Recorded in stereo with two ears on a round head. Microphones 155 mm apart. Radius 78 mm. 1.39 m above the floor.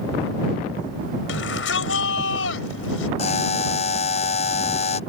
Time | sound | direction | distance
1.3 | a shout | 85° left | ?
3.2 | a buzzer | 40° left (ahead or behind) | ?